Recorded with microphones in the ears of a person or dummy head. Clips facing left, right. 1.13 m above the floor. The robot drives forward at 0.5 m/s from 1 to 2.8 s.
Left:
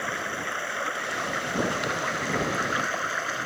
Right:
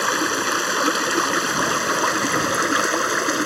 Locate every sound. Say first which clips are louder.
0.0 s running water: right 10 dB; 80° right; by 3.5 s 70° right (ahead or behind)